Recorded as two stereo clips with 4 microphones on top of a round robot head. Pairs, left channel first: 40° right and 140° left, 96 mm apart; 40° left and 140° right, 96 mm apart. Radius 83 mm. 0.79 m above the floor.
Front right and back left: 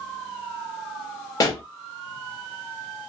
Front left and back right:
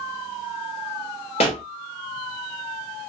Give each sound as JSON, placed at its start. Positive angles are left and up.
{"t": 1.4, "sound": "a pop", "azimuth_deg": 15, "distance_m": 1.2}